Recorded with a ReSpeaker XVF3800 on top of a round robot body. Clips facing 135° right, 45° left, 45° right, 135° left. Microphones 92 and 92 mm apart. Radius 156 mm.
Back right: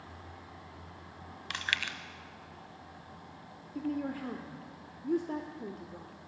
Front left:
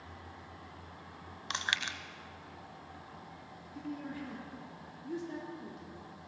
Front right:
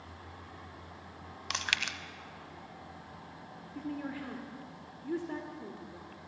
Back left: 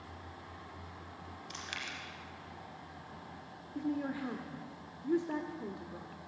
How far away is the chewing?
About 0.8 m.